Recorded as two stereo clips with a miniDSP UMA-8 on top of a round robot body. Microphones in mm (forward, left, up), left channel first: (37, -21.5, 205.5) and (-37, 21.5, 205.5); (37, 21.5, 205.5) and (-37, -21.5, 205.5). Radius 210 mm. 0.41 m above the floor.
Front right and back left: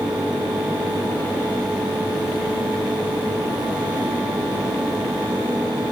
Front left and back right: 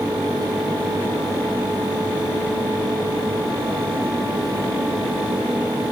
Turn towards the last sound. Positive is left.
No sound to turn to.